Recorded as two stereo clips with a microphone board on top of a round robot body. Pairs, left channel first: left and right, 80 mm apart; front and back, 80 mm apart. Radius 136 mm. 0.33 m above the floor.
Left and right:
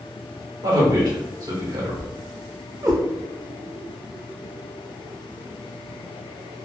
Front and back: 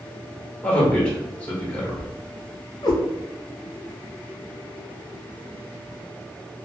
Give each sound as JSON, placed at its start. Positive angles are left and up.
{"t": 0.6, "sound": "a man speaking", "azimuth_deg": -70, "distance_m": 1.5}
{"t": 2.8, "sound": "a cat meowing", "azimuth_deg": -40, "distance_m": 0.8}